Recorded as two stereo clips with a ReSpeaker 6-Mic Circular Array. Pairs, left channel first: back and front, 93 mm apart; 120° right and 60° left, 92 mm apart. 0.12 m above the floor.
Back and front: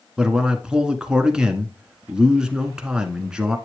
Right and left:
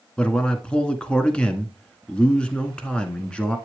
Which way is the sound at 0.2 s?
65° right.